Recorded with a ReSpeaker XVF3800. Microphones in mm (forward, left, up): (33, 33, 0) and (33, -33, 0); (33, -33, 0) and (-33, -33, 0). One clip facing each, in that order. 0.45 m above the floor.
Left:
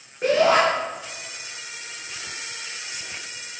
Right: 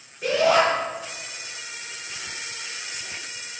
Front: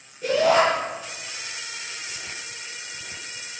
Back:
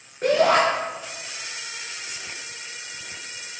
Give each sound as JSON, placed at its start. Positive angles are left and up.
{"t": 0.2, "sound": "a shout", "azimuth_deg": 140, "distance_m": 5.5}